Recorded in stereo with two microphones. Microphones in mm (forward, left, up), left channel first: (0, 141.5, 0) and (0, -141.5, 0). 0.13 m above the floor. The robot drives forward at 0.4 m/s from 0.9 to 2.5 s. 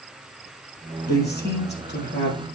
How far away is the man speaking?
About 3.5 m.